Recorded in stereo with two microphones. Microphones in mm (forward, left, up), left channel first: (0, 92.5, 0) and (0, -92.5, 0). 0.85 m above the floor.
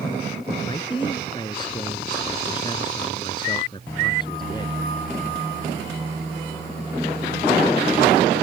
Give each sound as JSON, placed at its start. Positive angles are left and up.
{"t": 0.7, "sound": "a man speaking", "side_deg": 25}